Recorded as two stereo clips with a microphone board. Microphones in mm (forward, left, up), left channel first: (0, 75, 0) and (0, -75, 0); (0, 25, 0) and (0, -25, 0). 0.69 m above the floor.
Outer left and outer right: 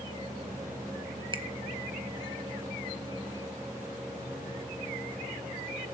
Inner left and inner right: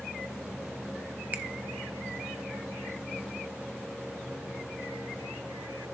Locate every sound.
1.3 s a finger snap: 35° right (ahead or behind), 0.8 m